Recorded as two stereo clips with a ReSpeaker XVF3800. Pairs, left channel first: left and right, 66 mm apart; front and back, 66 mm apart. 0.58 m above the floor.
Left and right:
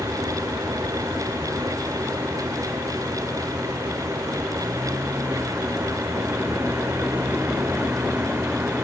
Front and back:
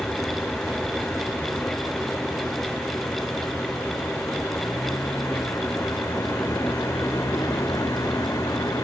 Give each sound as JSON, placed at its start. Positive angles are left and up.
{"t": 0.0, "sound": "a vehicle", "azimuth_deg": -75}